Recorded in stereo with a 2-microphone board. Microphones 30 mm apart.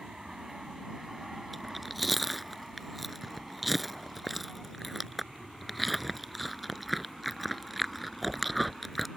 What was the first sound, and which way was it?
An aircraft, 15° right (ahead or behind).